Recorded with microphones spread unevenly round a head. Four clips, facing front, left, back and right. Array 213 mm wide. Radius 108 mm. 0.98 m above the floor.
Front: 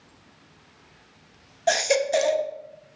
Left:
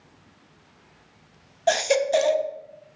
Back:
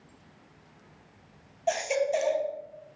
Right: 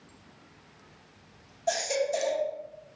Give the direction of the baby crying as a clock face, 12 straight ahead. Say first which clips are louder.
Left 7 dB, front 5 dB; 11 o'clock.